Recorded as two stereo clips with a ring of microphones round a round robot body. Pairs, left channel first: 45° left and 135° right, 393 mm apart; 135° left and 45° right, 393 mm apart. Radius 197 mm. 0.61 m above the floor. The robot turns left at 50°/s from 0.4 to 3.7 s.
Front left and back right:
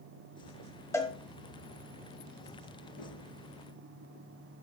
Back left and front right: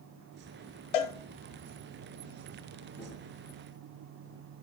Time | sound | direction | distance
0.9 | a cowbell | 130° left | 1.3 m
3.0 | a gunshot | 50° left | 4.5 m